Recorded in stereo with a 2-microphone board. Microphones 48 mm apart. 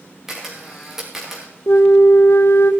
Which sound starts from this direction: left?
A flute, at 1.7 s.